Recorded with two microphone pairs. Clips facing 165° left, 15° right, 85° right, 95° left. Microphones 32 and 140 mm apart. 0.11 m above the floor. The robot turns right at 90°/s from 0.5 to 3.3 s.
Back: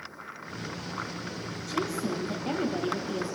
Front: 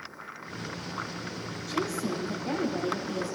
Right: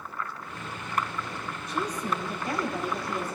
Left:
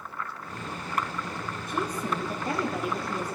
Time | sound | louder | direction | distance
1.7 | a woman speaking | even, even | 70° left | 3.5 m